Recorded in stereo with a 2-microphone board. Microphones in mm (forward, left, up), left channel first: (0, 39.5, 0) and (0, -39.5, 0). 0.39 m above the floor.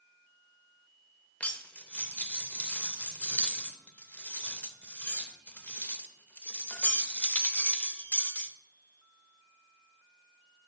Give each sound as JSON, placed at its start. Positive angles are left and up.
{"t": 1.4, "sound": "cutlery clinking", "side_deg": 20, "distance_m": 0.5}